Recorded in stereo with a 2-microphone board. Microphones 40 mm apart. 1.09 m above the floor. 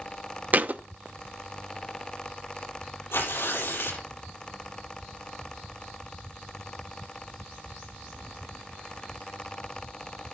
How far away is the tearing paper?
About 8 m.